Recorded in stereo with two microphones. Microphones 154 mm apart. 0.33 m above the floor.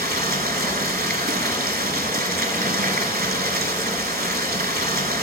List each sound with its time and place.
0.0 s running water: 80° right, 0.9 m